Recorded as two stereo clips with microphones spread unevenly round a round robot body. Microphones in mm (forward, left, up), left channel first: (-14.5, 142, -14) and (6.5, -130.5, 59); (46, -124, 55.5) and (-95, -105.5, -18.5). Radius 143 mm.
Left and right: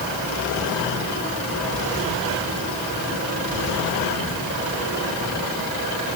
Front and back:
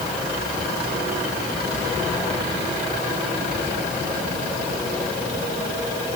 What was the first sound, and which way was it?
Only background noise.